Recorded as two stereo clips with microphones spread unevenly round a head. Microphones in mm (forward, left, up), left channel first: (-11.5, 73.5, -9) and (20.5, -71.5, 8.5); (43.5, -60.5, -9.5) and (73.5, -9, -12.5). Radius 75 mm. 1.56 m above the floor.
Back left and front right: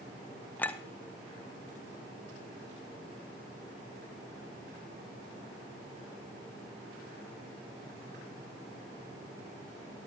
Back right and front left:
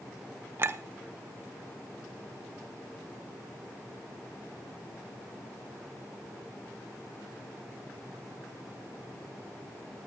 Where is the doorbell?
I don't hear a doorbell.